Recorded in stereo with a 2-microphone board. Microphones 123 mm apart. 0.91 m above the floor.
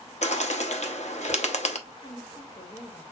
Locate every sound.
0.2 s a bird: 65° left (ahead or behind), 0.8 m
1.9 s a woman speaking: 40° left (ahead or behind), 1.2 m